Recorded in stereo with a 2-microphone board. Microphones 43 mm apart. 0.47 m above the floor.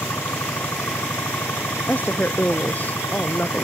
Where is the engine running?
80° left.